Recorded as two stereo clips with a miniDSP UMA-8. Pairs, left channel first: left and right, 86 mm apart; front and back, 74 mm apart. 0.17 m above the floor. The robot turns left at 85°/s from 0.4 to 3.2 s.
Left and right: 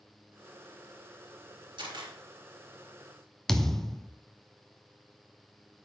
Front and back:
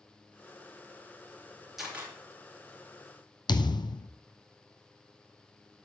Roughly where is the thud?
Ahead.